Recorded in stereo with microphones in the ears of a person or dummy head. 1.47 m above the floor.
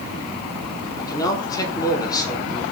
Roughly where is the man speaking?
Left.